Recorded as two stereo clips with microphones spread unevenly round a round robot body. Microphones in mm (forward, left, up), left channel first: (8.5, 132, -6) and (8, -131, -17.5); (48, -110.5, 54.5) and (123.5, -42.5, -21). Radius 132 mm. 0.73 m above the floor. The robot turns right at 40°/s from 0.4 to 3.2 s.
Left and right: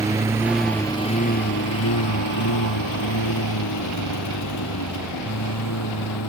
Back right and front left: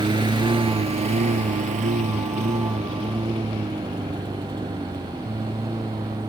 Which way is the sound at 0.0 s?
10° right.